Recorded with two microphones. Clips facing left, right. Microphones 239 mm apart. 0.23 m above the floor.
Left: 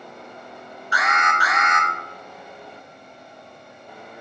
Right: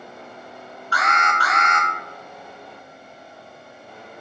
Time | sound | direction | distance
0.9 | an alarm | 15° left (ahead or behind) | 2.0 m